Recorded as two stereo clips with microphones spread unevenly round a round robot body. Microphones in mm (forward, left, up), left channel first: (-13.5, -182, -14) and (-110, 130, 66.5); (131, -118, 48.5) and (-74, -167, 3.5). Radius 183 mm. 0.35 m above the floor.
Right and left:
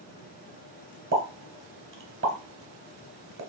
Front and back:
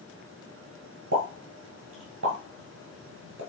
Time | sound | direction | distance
1.1 | a pop | 165° left | 1.3 m